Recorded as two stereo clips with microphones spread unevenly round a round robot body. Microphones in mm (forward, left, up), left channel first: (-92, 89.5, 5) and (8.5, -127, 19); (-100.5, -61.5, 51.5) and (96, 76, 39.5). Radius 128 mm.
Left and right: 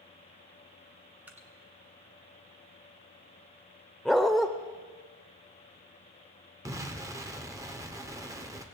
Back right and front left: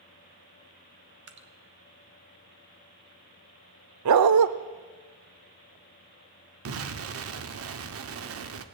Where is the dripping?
20° left, 1.3 m.